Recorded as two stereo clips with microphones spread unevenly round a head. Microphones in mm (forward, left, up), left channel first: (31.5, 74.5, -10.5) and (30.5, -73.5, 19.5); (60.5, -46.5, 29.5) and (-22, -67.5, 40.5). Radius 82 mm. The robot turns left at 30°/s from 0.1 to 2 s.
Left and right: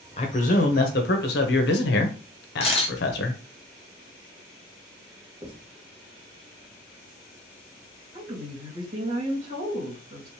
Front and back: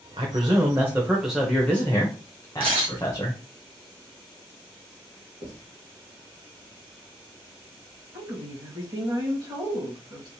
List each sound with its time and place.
0.2 s a man speaking: 145° left, 0.8 m; by 3.4 s 90° left, 0.8 m
2.6 s a camera shutter: 150° left, 0.8 m
5.4 s writing: 150° right, 1.8 m
8.1 s a woman speaking: 125° right, 2 m